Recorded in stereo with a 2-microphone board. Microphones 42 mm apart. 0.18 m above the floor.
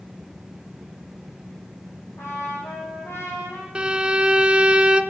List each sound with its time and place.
2.2 s a trumpet: 80° left, 6 m
3.8 s a violin: 30° right (ahead or behind), 0.7 m